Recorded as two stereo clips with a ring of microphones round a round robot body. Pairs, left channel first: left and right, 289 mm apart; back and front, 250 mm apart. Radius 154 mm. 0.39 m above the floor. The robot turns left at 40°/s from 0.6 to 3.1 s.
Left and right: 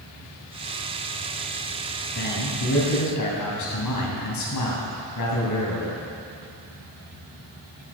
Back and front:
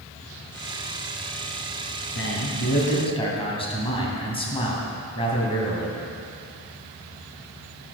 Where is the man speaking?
150° left, 3 m; by 6.0 s 110° left, 3 m.